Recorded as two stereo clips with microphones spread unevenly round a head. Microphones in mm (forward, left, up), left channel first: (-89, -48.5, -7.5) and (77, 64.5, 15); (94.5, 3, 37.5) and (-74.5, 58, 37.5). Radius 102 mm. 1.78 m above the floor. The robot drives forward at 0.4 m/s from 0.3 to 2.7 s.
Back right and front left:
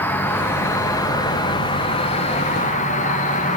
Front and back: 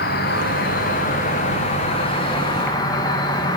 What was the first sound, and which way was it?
An insect, 65° right.